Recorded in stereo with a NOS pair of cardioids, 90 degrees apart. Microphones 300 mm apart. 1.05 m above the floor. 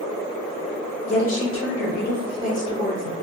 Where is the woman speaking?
60° left, 1.2 m; by 3.1 s 20° left, 1.7 m.